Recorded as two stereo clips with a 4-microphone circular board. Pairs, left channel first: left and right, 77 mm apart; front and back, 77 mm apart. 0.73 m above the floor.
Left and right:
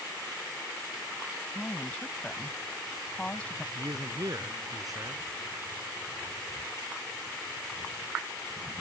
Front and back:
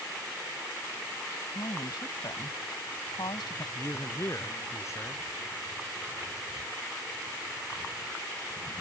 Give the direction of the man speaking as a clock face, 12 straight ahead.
2 o'clock.